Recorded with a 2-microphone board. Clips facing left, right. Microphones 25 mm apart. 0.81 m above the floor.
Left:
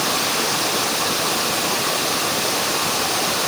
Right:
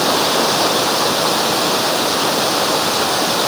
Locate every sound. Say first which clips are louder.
0.0 s running water: right 5 dB; 55° right (ahead or behind)